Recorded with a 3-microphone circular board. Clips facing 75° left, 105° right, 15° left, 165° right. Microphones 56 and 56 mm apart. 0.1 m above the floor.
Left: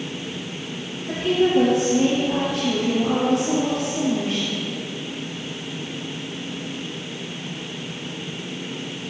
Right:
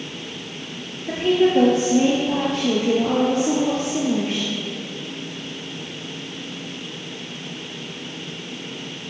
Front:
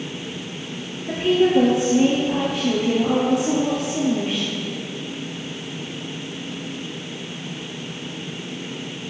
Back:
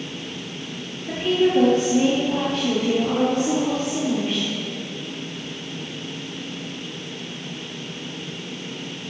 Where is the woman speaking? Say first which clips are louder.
Right 2 dB, front 2 dB; 65° right, 1.7 m.